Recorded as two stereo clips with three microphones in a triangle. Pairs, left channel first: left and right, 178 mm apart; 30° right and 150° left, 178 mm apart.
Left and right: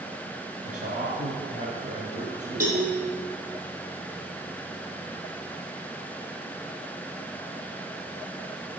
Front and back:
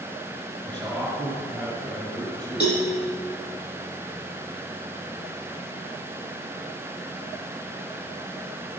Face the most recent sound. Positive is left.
turn(degrees=-50)